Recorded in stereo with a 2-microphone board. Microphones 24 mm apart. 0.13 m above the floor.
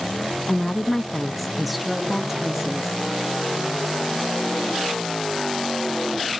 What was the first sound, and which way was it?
A woman speaking, 15° left (ahead or behind).